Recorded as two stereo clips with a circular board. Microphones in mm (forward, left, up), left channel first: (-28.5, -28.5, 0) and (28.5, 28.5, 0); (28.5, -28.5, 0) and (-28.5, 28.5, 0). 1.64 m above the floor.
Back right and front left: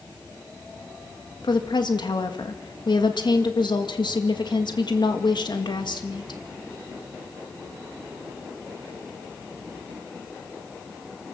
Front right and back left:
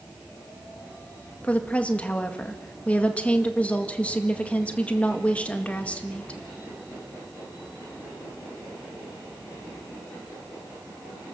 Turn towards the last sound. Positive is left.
turn(degrees=-120)